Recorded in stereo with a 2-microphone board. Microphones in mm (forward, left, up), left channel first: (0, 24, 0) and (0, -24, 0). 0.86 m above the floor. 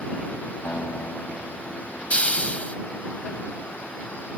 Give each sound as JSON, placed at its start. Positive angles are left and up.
{"t": 0.7, "sound": "a guitar", "side_deg": 60}
{"t": 2.1, "sound": "a hiss", "side_deg": 25}